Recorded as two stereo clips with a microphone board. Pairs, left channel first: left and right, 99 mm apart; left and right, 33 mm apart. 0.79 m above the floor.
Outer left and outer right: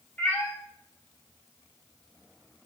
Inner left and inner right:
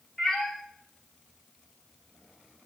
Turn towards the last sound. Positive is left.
turn(degrees=20)  # may be behind; listen again after turning